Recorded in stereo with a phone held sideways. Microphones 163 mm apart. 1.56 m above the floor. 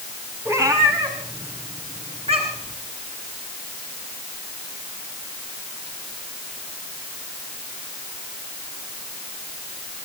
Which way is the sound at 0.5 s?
15° right (ahead or behind).